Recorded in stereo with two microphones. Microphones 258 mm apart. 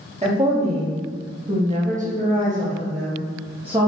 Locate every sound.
0.2 s a woman speaking: 25° right (ahead or behind), 1.6 m; by 3.9 s 20° right (ahead or behind), 1.1 m